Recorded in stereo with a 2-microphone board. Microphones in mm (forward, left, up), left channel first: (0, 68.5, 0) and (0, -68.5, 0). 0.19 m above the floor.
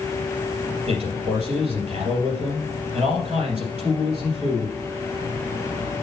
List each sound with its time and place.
0.9 s a man speaking: 45° right (ahead or behind), 3.5 m